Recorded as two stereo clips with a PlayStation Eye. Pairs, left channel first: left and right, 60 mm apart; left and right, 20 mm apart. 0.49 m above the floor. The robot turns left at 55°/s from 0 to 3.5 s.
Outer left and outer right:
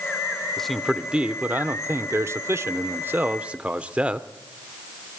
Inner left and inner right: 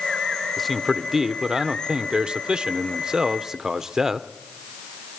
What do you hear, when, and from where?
0.6 s a man speaking: 10° left, 0.9 m; by 4.3 s 150° right, 0.9 m